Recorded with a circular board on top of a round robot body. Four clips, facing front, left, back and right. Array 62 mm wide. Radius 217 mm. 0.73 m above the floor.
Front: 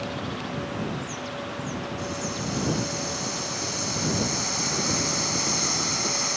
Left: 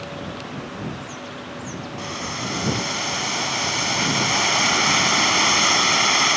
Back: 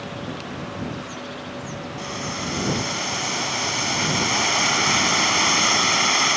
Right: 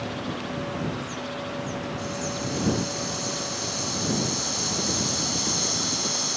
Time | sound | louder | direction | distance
2.0 | boiling | left 1 dB, back 2 dB | 125° left | ?